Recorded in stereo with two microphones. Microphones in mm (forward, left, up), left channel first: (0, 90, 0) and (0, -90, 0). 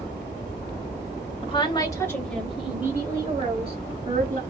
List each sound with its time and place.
1.4 s a woman speaking: 30° left (ahead or behind), 1.1 m; by 4.4 s 45° right (ahead or behind), 1.5 m